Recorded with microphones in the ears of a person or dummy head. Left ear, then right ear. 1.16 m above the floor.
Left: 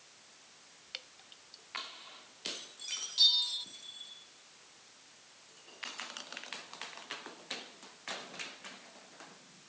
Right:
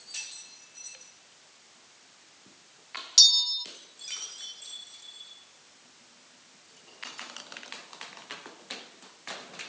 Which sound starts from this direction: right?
A bell, at 3.2 s.